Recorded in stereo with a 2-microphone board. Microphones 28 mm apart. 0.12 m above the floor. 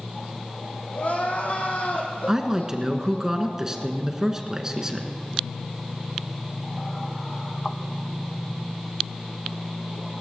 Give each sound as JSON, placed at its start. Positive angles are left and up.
{"t": 0.9, "sound": "crying", "side_deg": 60, "distance_m": 3.0}
{"t": 2.3, "sound": "a woman speaking", "side_deg": -20, "distance_m": 1.4}